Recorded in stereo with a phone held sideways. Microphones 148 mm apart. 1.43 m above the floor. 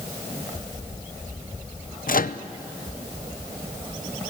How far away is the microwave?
About 0.6 m.